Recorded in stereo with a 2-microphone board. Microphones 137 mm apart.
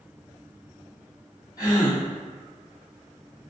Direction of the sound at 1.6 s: 30° left (ahead or behind).